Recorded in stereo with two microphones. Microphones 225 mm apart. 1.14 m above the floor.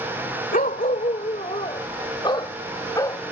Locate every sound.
0.5 s a dog barking: 40° left (ahead or behind); by 3.2 s 15° left (ahead or behind)